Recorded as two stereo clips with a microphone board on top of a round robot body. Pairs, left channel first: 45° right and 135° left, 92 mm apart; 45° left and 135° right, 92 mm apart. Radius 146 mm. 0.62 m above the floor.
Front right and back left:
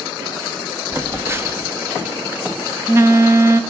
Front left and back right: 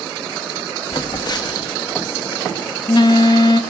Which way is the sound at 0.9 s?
75° left.